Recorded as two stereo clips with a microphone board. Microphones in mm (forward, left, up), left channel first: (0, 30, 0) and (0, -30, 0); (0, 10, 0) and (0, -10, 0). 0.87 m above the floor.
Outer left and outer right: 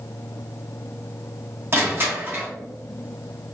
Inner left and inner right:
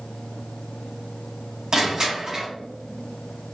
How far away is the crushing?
About 1.4 m.